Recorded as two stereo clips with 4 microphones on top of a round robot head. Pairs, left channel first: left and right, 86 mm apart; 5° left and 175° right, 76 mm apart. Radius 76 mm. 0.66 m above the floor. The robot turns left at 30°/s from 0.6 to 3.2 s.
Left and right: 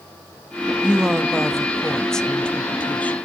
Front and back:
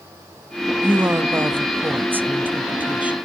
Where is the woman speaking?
155° right, 0.7 m; by 3.2 s 135° left, 0.7 m.